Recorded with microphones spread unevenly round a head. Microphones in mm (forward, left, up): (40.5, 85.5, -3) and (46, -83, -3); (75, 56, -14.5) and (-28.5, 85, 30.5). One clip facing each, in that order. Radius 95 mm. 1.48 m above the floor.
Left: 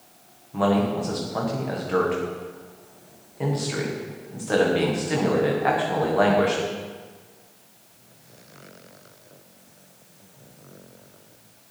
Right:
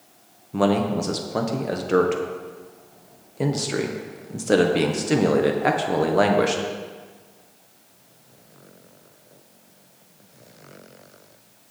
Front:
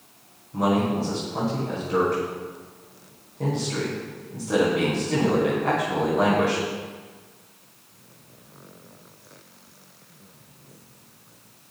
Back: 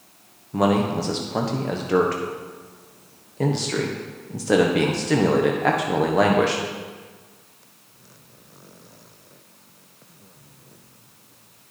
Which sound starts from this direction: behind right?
A man speaking, at 0.5 s.